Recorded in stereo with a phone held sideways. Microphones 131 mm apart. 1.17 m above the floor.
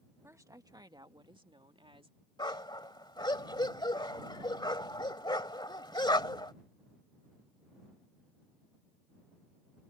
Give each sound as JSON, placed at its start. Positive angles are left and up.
{"t": 0.2, "sound": "a woman speaking", "side_deg": -20}
{"t": 2.4, "sound": "a dog barking", "side_deg": 35}